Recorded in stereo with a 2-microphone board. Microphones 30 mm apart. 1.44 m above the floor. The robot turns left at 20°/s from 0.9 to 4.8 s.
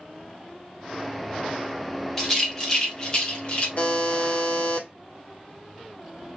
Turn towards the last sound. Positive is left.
turn(degrees=80)